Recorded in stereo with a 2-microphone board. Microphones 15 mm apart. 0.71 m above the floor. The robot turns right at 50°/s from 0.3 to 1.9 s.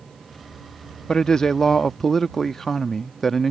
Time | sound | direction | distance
1.1 | a man speaking | 125° left | ?